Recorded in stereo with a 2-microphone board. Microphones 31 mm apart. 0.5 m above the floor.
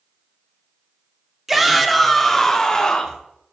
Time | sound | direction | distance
1.5 | a shout | 10° right (ahead or behind) | 0.9 m